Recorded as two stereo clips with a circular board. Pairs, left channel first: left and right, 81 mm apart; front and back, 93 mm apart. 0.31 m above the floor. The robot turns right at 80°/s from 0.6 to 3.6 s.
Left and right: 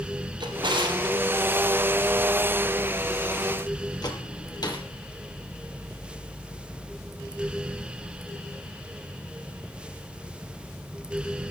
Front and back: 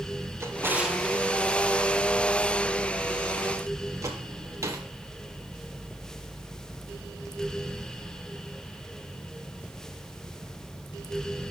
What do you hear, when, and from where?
0.4 s a drawer: 115° right, 3.5 m; by 4.9 s 125° left, 3.5 m